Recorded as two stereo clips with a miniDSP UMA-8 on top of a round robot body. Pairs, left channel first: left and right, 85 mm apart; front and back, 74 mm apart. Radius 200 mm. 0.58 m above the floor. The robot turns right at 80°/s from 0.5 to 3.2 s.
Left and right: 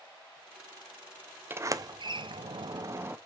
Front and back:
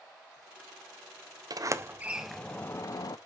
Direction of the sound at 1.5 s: 155° right.